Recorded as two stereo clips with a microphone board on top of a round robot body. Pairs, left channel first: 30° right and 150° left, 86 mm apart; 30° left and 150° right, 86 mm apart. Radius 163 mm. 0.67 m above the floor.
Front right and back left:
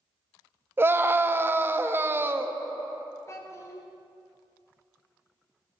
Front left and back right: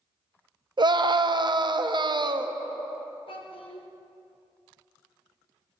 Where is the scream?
150° right, 0.8 m.